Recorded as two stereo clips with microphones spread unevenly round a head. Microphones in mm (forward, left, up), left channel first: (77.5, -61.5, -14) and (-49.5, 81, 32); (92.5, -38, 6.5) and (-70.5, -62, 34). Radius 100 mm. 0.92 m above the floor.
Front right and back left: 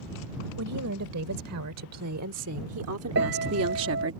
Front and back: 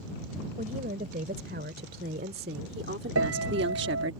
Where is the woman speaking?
140° left; by 4.2 s 160° left.